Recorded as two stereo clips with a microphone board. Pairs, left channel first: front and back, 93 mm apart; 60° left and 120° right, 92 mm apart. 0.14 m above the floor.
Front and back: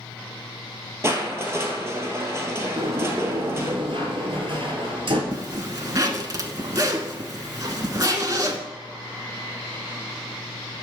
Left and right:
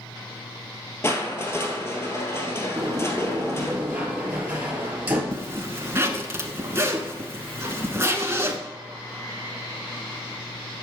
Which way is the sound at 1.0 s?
120° left.